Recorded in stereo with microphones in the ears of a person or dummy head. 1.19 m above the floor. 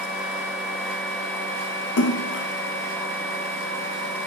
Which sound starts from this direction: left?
A splash, at 2.0 s.